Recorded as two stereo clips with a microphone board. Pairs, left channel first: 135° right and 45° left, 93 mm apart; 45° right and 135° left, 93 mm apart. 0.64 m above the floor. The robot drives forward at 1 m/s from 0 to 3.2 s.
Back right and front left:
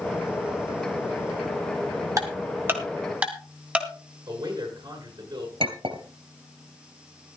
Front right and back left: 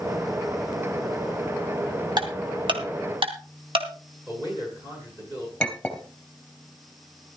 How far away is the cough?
No cough in this recording.